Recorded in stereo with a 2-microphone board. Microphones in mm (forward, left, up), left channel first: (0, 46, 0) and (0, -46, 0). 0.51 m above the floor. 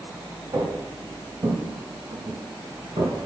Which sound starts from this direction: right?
Footsteps, at 0.5 s.